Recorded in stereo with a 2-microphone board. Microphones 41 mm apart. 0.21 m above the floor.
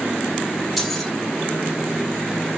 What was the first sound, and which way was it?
Keys jangling, centre (ahead or behind).